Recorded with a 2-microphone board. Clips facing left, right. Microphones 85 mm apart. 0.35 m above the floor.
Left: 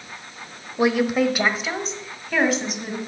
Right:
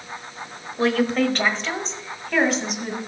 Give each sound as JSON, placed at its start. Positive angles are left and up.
{"t": 0.8, "sound": "a woman speaking", "side_deg": 15, "distance_m": 1.0}